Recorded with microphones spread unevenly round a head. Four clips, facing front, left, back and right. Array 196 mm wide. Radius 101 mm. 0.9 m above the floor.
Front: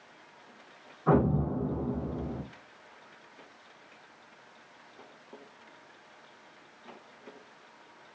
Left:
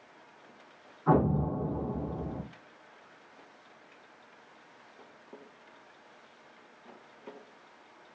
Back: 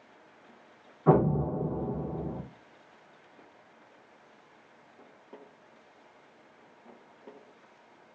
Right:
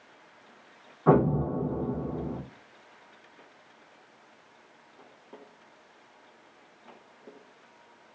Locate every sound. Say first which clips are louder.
1.1 s an explosion: right 4 dB, back 2 dB; 135° right, 0.8 m